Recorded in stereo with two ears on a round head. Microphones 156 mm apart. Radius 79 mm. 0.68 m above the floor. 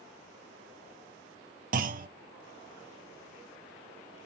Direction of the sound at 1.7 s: 50° right (ahead or behind).